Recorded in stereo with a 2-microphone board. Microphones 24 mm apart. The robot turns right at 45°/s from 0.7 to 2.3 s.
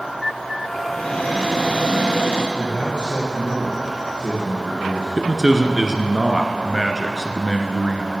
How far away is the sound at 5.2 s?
About 1.1 m.